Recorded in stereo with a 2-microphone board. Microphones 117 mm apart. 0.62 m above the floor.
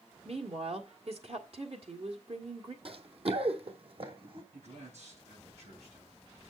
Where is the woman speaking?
60° right (ahead or behind), 1.6 m.